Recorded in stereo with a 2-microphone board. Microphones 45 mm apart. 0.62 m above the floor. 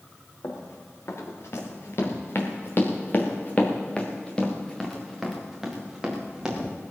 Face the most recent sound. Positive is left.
turn(degrees=-15)  # may be behind; listen again after turning